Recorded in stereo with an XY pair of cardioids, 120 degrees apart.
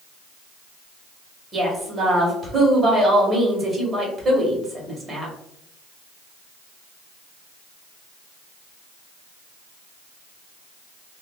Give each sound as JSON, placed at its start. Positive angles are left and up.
{"t": 1.5, "sound": "a woman speaking", "azimuth_deg": -25, "distance_m": 1.4}